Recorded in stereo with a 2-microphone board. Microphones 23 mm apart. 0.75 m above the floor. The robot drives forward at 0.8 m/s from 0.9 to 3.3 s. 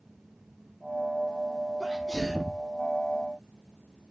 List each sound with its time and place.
1.8 s a sneeze: 20° left (ahead or behind), 1.4 m; by 2.7 s 30° left (ahead or behind), 0.9 m